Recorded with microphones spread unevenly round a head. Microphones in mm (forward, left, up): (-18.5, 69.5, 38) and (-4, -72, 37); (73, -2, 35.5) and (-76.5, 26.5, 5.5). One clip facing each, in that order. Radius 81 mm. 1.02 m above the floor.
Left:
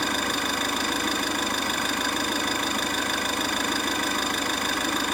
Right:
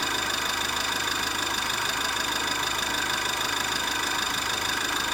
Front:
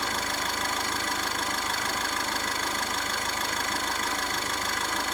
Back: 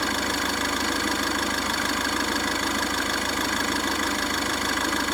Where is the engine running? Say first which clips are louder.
Left 4 dB, back 5 dB; 140° left, 6.5 m.